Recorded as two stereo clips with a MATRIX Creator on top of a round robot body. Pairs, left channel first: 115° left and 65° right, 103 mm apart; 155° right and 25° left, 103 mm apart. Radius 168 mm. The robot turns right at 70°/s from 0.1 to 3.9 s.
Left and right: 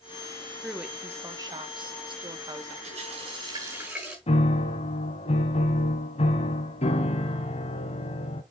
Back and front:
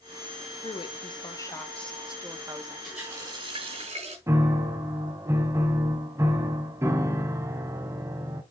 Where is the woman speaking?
160° right, 1.6 m; by 2.7 s 15° right, 1.6 m.